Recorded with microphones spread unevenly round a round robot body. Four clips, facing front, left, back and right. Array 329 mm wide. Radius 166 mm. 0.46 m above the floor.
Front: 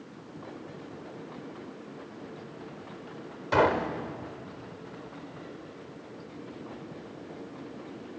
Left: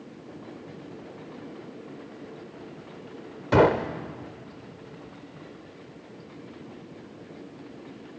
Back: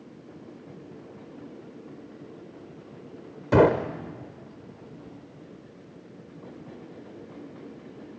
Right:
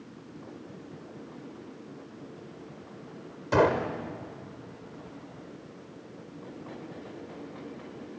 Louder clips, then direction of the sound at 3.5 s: Left 4 dB, back 5 dB; 155° left.